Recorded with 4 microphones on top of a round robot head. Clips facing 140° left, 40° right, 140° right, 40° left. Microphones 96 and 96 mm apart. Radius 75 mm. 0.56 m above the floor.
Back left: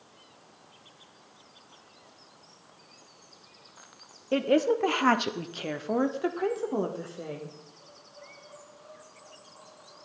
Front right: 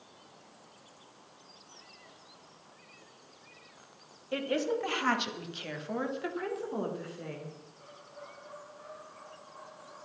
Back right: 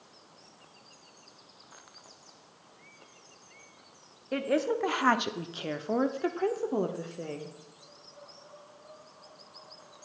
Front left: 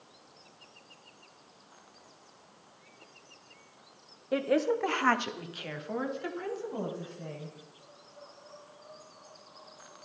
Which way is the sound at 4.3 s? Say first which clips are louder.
Back left 7 dB, front left 1 dB; 120° left.